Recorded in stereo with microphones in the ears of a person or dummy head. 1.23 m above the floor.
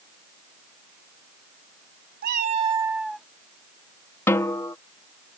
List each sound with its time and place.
2.2 s a cat meowing: 55° right (ahead or behind); by 3.3 s centre (ahead or behind)
4.3 s a snare drum: 10° left (ahead or behind)